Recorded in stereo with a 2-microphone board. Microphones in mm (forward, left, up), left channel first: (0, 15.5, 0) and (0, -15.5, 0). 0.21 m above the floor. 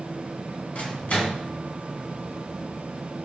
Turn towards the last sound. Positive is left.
turn(degrees=45)  # may be behind; listen again after turning